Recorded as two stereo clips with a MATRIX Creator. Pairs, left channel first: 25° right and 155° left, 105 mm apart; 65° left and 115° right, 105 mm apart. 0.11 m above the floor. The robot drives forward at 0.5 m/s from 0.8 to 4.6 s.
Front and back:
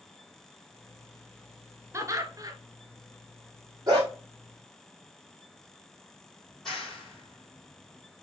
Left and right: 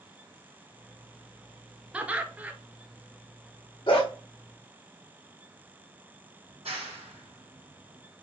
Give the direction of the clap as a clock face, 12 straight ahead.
4 o'clock.